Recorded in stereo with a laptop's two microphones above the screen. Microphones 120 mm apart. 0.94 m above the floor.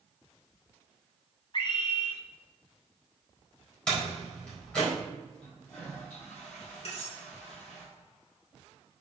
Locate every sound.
1.5 s a scream: 40° left (ahead or behind), 1.5 m
3.9 s a door slam: 10° left (ahead or behind), 3.5 m
5.4 s a toilet flushing: 15° left (ahead or behind), 4 m
6.8 s cutlery clinking: 55° left (ahead or behind), 2.5 m